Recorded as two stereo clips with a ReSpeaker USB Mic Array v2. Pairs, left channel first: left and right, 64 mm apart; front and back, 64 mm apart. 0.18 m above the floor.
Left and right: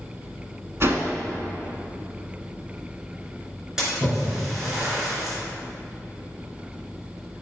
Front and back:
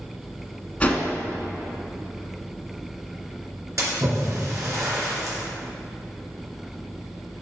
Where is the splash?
170° right, 2.5 m.